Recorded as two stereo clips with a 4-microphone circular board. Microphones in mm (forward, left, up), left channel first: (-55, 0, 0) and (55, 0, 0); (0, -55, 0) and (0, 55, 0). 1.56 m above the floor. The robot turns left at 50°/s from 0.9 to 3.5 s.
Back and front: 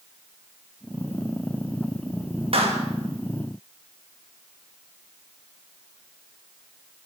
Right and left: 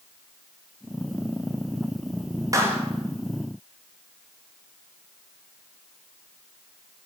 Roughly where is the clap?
Ahead left.